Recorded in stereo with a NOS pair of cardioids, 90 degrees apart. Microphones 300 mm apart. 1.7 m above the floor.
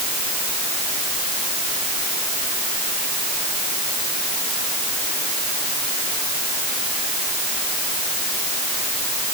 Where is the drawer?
I don't hear a drawer.